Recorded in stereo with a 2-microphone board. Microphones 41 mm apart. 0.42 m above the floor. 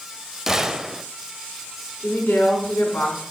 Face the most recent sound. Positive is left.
turn(degrees=55)  # may be behind; listen again after turning